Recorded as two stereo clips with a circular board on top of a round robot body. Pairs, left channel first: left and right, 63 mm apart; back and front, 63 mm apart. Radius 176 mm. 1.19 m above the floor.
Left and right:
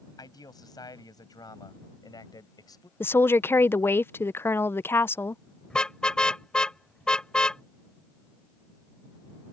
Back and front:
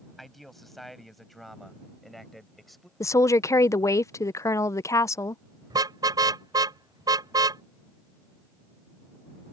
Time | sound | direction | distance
0.2 | a man speaking | 90° left | ?
3.0 | a woman speaking | 145° left | ?
5.7 | a car horn | 15° left | ?